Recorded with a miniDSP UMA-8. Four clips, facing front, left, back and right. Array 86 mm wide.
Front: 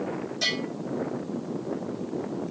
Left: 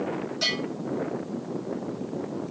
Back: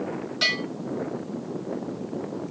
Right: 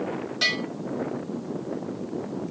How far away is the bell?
About 2.5 m.